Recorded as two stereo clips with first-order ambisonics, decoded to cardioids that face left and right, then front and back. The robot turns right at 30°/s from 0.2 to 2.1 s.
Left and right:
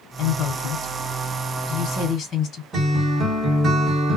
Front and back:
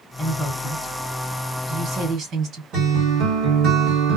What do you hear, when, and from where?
0.2 s a woman speaking: 75° left, 1.6 m; by 2.6 s 135° left, 1.6 m
2.7 s a guitar: 155° right, 1.8 m